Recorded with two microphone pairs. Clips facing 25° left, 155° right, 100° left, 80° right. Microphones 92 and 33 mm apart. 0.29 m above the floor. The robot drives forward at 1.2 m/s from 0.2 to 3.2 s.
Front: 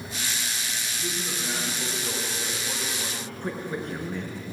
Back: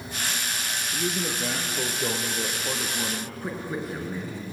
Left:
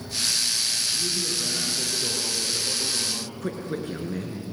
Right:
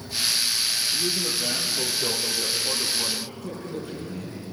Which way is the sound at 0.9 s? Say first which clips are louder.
Back 6 dB, right 2 dB; 140° right.